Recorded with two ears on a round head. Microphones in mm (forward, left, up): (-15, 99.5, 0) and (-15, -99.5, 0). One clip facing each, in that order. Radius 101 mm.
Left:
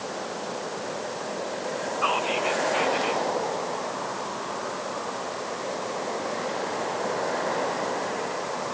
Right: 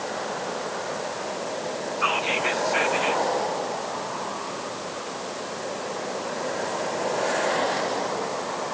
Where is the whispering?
25° right (ahead or behind), 4.5 m.